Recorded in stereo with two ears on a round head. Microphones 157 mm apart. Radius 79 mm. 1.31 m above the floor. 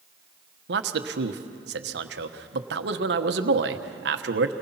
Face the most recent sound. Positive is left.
turn(degrees=-70)  # may be behind; listen again after turning